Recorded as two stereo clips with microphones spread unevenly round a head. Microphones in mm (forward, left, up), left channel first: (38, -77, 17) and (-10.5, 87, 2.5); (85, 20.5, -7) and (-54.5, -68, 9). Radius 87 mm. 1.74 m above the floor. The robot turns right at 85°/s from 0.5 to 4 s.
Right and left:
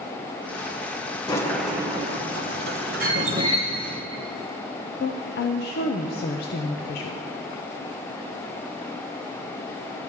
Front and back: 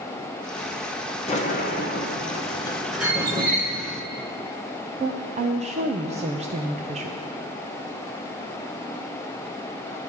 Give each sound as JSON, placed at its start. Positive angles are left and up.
{"t": 1.3, "sound": "a sliding door", "azimuth_deg": -15, "distance_m": 0.9}
{"t": 3.0, "sound": "a squeak", "azimuth_deg": -165, "distance_m": 1.9}
{"t": 5.0, "sound": "a woman speaking", "azimuth_deg": -105, "distance_m": 0.6}